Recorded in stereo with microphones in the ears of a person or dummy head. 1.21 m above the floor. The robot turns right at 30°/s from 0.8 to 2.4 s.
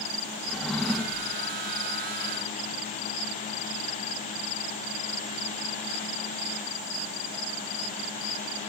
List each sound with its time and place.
0.5 s a drawer: centre (ahead or behind), 1.2 m; by 1.3 s 15° right (ahead or behind), 1.2 m